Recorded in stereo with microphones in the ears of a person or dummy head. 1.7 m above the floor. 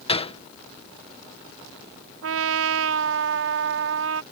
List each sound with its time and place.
0.1 s a gunshot: 35° left (ahead or behind)
2.2 s a trumpet: 85° right